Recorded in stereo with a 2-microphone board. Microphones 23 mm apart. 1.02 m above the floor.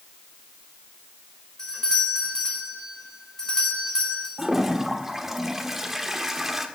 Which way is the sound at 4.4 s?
10° right (ahead or behind).